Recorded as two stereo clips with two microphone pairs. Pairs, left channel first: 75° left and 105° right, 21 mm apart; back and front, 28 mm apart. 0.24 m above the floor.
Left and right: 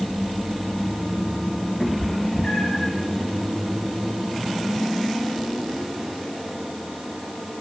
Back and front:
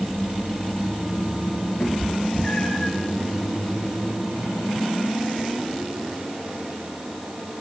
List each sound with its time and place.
1.8 s a cat meowing: 135° left, 4 m; by 2.9 s 110° left, 3 m